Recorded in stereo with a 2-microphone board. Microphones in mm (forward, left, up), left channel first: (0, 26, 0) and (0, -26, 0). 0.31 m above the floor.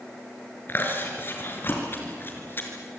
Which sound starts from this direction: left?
Chewing, at 0.7 s.